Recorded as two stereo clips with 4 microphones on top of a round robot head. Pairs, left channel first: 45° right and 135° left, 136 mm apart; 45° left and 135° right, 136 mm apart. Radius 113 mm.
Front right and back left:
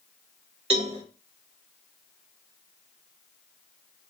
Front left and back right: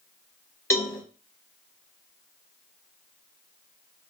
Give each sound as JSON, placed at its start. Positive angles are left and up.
{"t": 0.7, "sound": "a cowbell", "azimuth_deg": 110, "distance_m": 1.6}